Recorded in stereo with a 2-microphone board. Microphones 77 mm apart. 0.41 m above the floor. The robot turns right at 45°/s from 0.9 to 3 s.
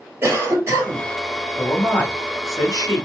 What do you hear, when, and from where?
0.2 s a cough: 35° right (ahead or behind), 2 m; by 1.1 s 30° right (ahead or behind), 2 m
1.6 s a man speaking: 5° left, 1.7 m; by 3.0 s 70° left, 1.7 m